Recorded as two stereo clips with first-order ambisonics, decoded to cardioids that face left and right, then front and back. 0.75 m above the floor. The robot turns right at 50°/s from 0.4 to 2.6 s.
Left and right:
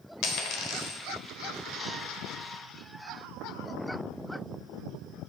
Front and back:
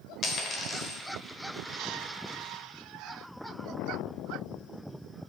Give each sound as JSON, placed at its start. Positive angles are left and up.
{"t": 0.2, "sound": "a dropped coin", "azimuth_deg": 60, "distance_m": 1.0}